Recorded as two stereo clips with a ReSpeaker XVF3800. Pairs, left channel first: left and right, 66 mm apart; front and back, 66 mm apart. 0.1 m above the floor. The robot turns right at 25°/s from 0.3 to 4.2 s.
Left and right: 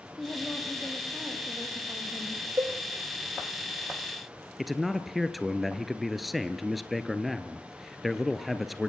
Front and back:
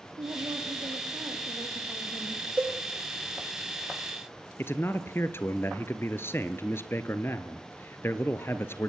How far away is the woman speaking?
About 3 m.